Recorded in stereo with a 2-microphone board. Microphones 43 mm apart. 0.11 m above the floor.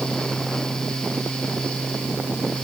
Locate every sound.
Only background noise.